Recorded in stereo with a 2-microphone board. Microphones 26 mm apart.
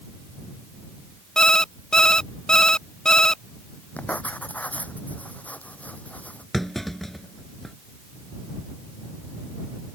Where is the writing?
80° left.